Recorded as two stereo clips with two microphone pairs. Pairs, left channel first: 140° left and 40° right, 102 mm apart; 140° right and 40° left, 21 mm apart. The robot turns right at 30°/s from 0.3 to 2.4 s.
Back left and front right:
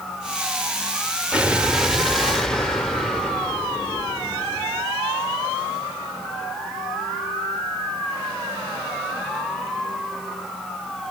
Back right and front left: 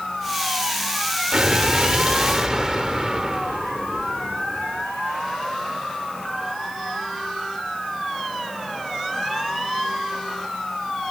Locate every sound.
1.3 s an explosion: 30° left, 1.0 m; by 4.8 s 60° left, 1.0 m